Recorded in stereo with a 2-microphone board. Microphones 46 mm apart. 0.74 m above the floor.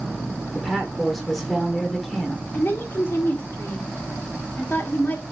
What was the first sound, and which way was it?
A woman speaking, centre (ahead or behind).